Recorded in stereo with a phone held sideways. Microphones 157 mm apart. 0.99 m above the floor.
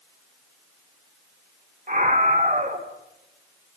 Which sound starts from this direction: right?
A scream, at 1.9 s.